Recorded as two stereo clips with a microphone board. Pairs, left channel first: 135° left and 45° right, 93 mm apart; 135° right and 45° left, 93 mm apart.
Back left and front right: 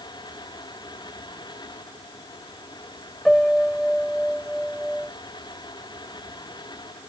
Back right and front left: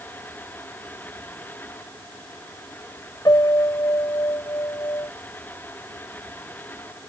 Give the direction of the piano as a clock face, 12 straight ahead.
5 o'clock.